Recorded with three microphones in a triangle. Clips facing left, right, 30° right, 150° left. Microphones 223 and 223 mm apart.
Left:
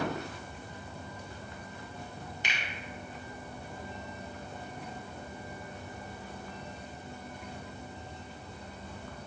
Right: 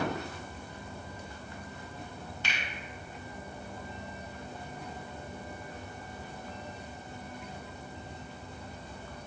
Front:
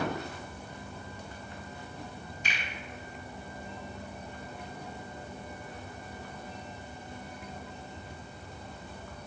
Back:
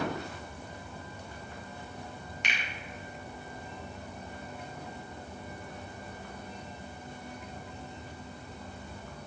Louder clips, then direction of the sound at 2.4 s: Right 2 dB, back 1 dB; 160° left.